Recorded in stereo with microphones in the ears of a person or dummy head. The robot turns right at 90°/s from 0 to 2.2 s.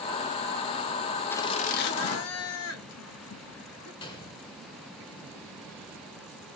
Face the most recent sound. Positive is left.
turn(degrees=35)  # may be behind; listen again after turning